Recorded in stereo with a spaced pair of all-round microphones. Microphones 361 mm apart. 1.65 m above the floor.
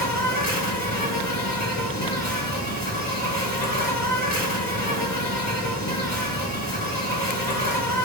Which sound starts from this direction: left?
An insect, at 0.0 s.